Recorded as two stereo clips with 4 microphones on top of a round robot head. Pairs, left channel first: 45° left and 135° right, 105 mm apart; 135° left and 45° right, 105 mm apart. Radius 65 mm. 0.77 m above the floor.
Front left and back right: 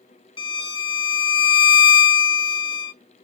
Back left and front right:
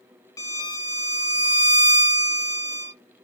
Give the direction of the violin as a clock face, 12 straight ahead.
9 o'clock.